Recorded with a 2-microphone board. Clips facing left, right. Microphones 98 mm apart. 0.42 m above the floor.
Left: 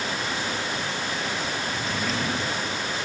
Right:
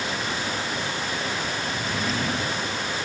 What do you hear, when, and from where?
1.7 s a drawer: centre (ahead or behind)